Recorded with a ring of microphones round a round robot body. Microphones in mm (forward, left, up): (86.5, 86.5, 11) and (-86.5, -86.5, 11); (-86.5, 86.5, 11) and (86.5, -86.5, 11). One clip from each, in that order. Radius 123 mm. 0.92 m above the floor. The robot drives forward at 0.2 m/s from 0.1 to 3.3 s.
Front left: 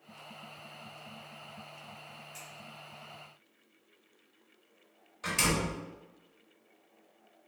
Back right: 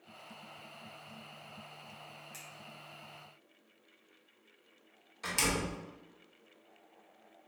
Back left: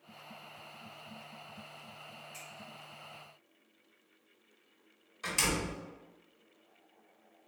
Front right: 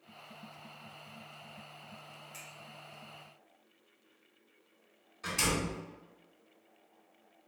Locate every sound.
2.3 s a finger snap: 130° right, 1.0 m
5.2 s a door slam: 170° right, 1.4 m